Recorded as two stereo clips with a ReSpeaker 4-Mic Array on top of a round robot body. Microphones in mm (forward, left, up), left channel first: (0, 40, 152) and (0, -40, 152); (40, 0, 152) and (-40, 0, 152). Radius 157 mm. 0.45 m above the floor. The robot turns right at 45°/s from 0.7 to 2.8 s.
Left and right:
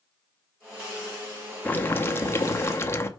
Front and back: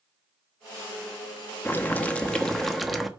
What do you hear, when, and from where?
1.6 s boiling: 40° left, 1.2 m; by 3.1 s 90° left, 1.2 m